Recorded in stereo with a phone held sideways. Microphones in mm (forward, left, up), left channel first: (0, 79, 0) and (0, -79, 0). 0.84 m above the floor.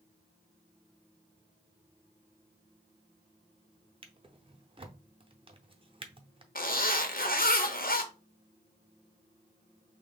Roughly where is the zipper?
Left.